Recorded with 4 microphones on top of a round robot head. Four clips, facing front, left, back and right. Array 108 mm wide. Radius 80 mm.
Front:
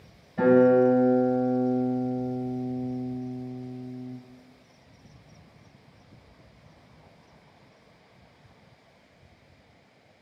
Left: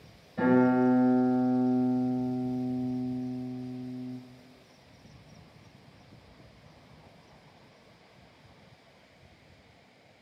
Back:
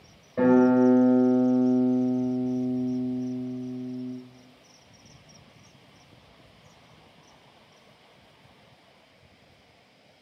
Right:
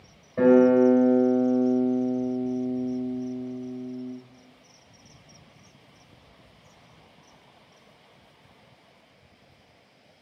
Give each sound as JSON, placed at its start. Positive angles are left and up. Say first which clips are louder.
{"t": 0.4, "sound": "a guitar", "louder": "right 6 dB, front 1 dB", "azimuth_deg": -145, "distance_m": 3.5}